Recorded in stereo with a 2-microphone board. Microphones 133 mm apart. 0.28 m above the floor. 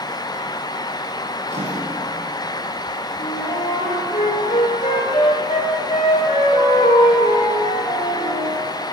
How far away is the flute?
About 5 m.